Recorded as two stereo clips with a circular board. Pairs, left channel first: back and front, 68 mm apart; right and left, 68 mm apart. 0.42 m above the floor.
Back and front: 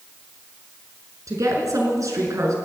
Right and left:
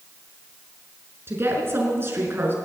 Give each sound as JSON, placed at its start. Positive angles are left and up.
{"t": 1.3, "sound": "a woman speaking", "azimuth_deg": 35, "distance_m": 5.5}